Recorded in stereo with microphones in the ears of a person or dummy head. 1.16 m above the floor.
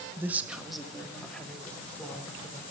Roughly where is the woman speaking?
Centre.